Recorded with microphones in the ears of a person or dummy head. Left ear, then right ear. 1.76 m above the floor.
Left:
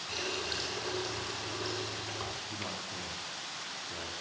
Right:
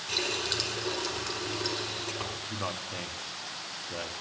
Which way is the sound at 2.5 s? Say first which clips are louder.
Right 4 dB; 55° right (ahead or behind).